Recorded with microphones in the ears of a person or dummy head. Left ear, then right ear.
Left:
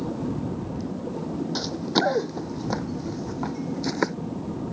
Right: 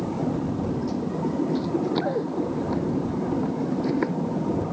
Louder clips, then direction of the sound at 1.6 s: Left 1 dB; 70° left (ahead or behind).